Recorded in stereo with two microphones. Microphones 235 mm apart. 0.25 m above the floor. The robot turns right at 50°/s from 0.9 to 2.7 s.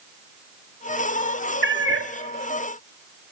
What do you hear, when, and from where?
1.6 s a cat meowing: 50° right (ahead or behind), 1.9 m; by 2.1 s 75° right (ahead or behind), 1.9 m